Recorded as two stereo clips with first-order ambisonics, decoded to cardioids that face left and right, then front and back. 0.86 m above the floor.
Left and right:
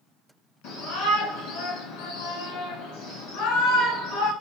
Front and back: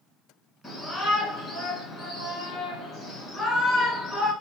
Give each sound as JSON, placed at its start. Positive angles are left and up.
{"t": 0.6, "sound": "a shout", "azimuth_deg": 70, "distance_m": 1.7}